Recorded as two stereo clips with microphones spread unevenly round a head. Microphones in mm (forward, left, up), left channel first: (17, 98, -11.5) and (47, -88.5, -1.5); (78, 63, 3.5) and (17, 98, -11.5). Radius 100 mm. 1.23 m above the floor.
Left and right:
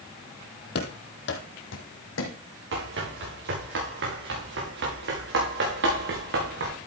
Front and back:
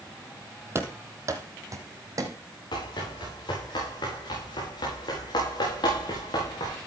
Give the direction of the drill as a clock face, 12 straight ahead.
No drill in this recording.